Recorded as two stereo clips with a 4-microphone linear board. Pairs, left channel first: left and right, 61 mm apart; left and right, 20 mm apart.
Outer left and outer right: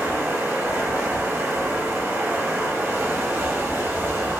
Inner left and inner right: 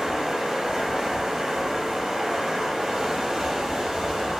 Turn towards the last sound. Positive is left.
turn(degrees=-40)  # may be behind; listen again after turning